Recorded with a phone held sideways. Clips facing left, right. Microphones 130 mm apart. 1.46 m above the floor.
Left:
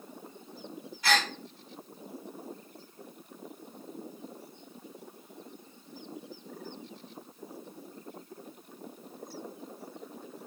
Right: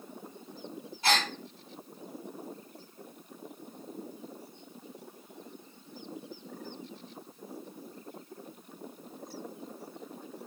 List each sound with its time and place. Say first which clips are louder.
1.0 s a gasp: even; 30° right (ahead or behind), 1.9 m